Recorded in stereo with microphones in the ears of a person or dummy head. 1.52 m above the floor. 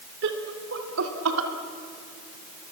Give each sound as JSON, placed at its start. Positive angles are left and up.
{"t": 0.2, "sound": "laughter", "side_deg": -70, "distance_m": 4.0}